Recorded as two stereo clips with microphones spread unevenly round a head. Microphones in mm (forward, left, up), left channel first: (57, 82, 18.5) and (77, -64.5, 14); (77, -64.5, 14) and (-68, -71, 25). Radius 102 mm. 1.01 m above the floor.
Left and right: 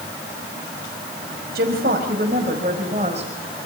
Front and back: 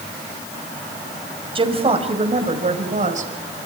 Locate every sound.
1.6 s a woman speaking: 125° right, 5.5 m; by 3.3 s 145° right, 5.5 m